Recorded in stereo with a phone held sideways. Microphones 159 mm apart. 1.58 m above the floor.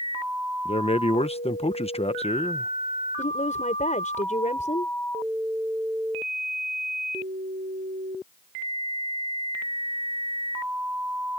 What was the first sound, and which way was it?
A man speaking, 40° left (ahead or behind).